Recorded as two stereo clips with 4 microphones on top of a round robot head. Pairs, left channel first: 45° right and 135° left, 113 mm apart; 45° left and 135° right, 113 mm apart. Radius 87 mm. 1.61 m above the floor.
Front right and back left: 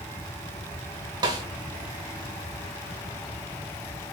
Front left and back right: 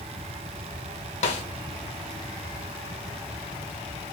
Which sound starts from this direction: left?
A snare drum, at 1.2 s.